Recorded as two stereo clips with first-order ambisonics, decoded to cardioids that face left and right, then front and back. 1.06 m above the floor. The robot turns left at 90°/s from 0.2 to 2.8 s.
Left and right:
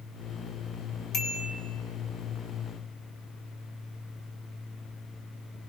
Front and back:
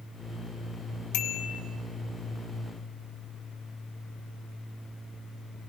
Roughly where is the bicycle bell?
Ahead.